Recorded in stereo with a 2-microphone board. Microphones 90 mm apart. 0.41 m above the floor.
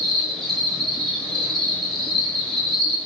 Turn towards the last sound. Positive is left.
turn(degrees=5)  # may be behind; listen again after turning